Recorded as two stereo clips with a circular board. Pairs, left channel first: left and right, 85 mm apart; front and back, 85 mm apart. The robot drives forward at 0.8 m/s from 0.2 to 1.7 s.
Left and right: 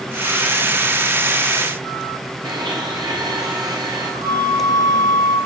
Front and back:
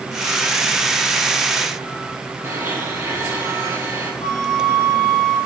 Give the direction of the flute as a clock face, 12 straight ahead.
3 o'clock.